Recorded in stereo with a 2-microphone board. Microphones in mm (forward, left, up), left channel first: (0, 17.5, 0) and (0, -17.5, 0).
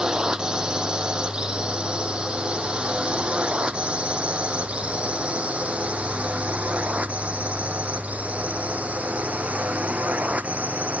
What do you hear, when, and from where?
0.0 s a drone: 25° right (ahead or behind); by 11.0 s 45° right (ahead or behind)